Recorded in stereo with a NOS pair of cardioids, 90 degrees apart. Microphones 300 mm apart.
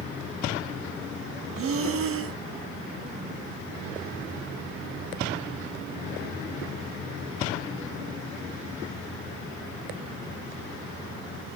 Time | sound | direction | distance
1.6 | breathing | 45° right | 0.7 m